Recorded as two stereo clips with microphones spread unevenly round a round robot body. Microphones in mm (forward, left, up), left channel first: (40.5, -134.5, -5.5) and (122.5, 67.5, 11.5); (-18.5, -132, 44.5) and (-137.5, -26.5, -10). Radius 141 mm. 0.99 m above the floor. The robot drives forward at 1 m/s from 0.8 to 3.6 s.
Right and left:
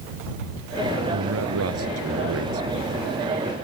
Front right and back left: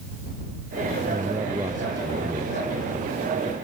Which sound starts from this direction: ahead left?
A man speaking, at 1.1 s.